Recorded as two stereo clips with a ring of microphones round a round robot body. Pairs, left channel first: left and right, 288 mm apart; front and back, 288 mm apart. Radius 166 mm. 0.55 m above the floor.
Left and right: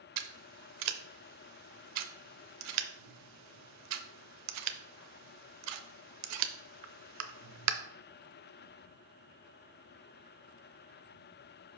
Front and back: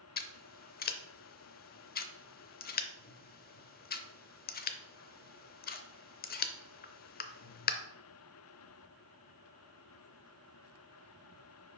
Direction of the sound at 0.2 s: 60° right.